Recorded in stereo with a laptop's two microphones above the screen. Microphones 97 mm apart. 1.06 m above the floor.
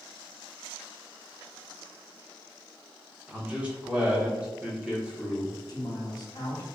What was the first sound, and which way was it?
A man speaking, 10° right (ahead or behind).